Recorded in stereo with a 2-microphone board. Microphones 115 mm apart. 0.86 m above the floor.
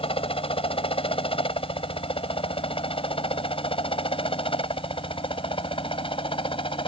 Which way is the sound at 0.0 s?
55° left (ahead or behind).